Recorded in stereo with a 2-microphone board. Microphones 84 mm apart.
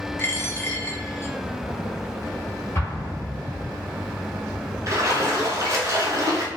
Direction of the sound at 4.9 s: 40° right (ahead or behind).